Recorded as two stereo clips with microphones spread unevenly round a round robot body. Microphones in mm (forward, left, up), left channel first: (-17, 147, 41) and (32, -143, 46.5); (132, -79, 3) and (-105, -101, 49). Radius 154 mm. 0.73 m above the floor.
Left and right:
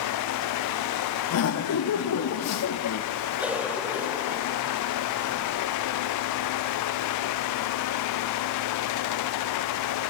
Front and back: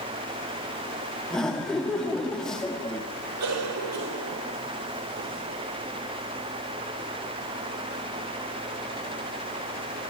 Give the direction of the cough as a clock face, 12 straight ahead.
6 o'clock.